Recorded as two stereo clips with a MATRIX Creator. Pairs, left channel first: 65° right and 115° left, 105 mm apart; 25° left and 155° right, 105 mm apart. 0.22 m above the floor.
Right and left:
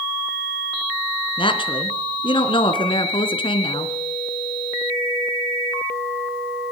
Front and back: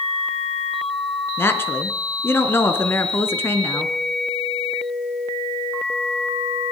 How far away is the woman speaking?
About 3 m.